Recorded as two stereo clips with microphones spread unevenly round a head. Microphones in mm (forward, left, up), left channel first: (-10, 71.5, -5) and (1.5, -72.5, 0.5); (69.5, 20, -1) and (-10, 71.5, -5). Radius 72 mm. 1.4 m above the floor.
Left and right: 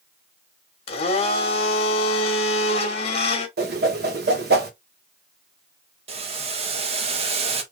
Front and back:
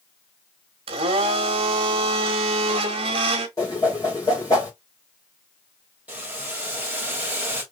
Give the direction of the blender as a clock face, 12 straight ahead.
7 o'clock.